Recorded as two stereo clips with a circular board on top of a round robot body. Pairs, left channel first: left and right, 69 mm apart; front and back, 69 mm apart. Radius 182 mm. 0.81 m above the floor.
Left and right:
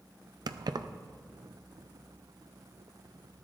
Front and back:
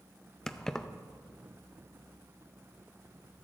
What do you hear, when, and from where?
0.5 s keys jangling: 80° right, 0.6 m